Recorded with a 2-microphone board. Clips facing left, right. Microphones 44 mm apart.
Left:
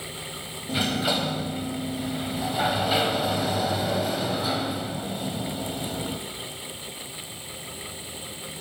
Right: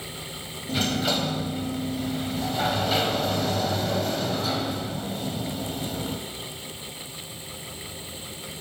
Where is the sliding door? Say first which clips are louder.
Even; 10° left (ahead or behind), 1.9 m.